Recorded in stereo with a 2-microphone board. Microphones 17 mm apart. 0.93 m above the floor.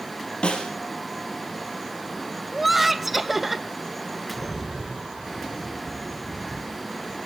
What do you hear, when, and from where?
0.4 s a snare drum: 70° left (ahead or behind), 3.5 m
2.5 s laughter: 10° right (ahead or behind), 0.9 m
4.3 s a rattle: 75° right (ahead or behind), 3.5 m